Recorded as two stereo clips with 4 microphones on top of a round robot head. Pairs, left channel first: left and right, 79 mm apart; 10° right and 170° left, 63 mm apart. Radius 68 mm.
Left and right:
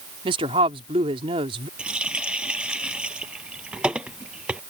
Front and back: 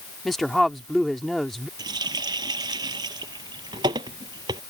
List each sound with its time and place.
0.2 s a woman speaking: 100° right
1.8 s a running tap: 165° right